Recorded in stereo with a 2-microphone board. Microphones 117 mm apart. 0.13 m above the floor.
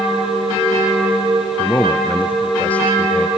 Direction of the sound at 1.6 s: 15° left (ahead or behind).